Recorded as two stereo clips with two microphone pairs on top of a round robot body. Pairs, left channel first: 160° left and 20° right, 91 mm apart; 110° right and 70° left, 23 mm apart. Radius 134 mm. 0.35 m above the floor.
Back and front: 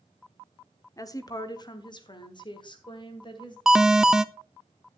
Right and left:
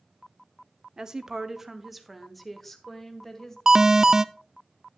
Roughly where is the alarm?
Ahead left.